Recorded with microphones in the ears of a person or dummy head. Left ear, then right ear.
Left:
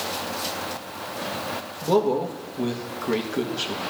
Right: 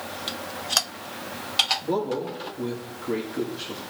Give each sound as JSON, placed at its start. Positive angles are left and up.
{"t": 1.8, "sound": "a man speaking", "side_deg": 60, "distance_m": 1.5}